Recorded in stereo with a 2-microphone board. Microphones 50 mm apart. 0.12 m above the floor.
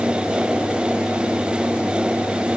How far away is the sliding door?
I don't hear a sliding door.